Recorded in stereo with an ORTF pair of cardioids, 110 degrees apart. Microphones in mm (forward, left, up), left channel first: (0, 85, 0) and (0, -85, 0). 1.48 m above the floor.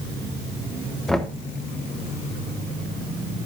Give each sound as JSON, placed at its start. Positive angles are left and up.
{"t": 1.1, "sound": "knocking", "azimuth_deg": 0, "distance_m": 1.2}